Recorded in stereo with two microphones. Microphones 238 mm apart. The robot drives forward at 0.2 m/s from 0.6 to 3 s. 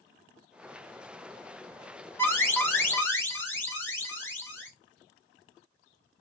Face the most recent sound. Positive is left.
turn(degrees=10)  # may be behind; listen again after turning